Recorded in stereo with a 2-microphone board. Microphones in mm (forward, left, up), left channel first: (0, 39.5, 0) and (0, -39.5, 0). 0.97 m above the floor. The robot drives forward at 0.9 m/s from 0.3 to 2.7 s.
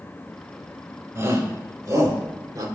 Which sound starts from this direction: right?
A shout, at 1.1 s.